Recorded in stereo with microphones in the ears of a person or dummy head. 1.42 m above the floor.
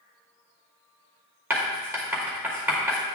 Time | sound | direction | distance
1.5 | writing | 10° right (ahead or behind) | 2.5 m